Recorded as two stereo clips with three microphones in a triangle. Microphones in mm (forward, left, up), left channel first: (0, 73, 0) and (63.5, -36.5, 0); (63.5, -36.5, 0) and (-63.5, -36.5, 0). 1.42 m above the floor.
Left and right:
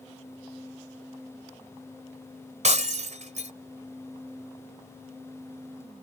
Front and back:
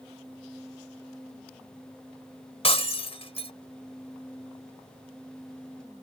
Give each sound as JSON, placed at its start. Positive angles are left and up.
{"t": 2.6, "sound": "breaking glass", "azimuth_deg": -40}